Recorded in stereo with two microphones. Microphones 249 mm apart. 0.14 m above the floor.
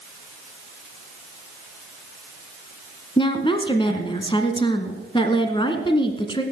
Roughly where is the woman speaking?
Centre.